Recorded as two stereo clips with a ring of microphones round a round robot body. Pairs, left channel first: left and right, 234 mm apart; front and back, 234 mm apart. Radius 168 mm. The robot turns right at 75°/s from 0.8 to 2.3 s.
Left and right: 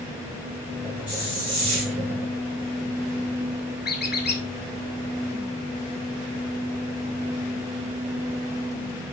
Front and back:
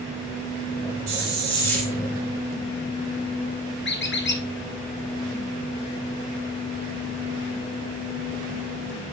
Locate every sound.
1.1 s a hiss: 165° right, 2.5 m; by 1.9 s 100° right, 2.5 m
3.9 s a squeak: 40° left, 2.5 m